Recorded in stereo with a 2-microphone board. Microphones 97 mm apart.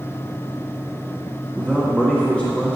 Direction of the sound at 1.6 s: 10° right (ahead or behind).